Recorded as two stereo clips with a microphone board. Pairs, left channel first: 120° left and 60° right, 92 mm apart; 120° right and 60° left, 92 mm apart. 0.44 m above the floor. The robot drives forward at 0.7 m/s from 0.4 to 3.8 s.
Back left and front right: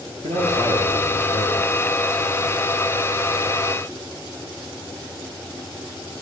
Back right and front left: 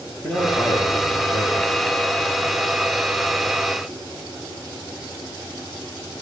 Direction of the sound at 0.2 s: 40° right.